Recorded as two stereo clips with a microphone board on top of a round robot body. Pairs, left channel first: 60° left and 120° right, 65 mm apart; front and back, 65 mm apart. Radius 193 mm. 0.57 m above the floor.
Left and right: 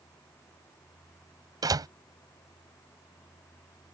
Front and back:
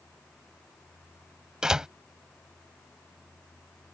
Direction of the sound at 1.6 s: 100° right.